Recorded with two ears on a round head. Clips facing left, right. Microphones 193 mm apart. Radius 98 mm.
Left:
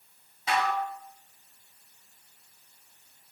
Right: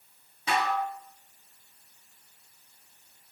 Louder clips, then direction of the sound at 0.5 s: Even; 75° right (ahead or behind).